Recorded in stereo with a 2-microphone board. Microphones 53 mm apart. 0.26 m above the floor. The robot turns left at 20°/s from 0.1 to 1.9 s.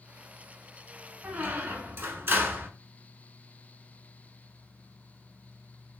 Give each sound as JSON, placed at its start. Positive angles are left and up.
{"t": 1.2, "sound": "a squeak", "side_deg": -30, "distance_m": 0.5}